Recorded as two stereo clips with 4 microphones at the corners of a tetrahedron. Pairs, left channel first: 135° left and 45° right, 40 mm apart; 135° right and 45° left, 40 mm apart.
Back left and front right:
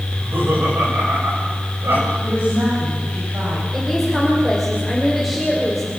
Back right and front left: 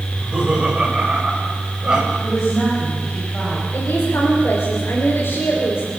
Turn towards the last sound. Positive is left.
turn(degrees=-135)